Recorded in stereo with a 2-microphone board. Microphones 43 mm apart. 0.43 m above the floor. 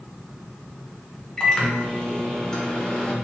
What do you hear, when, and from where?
1.4 s a microwave: 15° left (ahead or behind), 0.7 m